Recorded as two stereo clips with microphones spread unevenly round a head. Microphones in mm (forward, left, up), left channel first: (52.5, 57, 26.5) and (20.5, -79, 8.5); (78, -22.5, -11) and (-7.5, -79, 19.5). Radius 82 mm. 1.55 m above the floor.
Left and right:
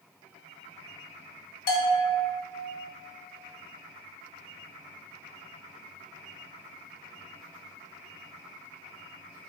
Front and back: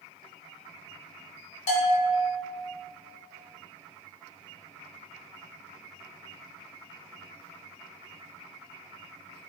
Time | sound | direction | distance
1.7 | a bell | 60° left | 1.8 m